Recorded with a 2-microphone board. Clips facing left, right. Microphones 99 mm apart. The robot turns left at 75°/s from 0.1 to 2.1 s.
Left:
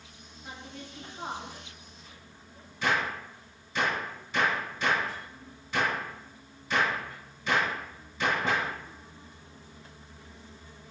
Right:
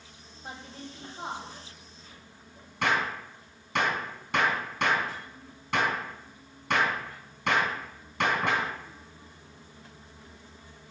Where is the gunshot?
65° right (ahead or behind), 3 m.